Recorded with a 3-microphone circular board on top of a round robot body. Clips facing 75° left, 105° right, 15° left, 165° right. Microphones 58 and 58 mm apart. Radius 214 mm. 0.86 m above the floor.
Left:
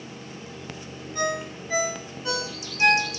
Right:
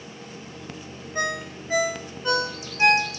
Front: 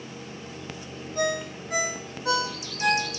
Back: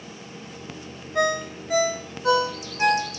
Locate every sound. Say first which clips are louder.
1.1 s a ringtone: even, back 4 dB; 170° right, 0.9 m